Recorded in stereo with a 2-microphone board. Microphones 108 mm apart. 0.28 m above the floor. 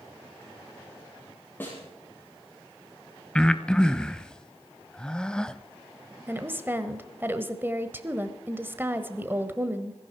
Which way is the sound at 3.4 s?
10° left (ahead or behind).